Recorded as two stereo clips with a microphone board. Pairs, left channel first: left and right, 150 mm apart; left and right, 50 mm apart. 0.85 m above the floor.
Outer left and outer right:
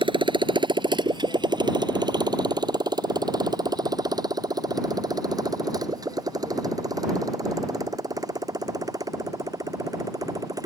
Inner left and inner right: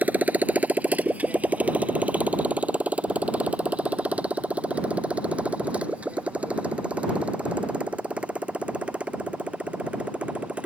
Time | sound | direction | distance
0.0 | a motorcycle | 35° right (ahead or behind) | ?